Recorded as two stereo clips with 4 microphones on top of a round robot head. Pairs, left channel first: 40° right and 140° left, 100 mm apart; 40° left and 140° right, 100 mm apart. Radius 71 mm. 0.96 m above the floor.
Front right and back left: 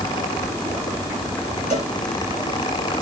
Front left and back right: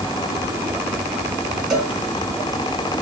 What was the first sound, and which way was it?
A cowbell, 50° right.